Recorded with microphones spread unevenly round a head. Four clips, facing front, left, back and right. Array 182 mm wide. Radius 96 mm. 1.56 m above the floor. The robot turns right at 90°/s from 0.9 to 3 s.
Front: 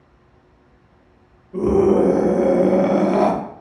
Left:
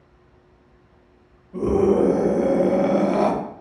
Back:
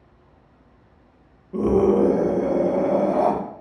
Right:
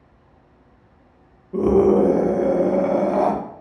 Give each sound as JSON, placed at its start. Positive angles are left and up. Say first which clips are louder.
{"t": 1.5, "sound": "a scream", "louder": "right 3 dB, front 2 dB", "azimuth_deg": -95, "distance_m": 1.1}